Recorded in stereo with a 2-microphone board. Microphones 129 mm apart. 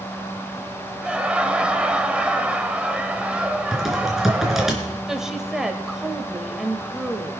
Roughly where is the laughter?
Centre.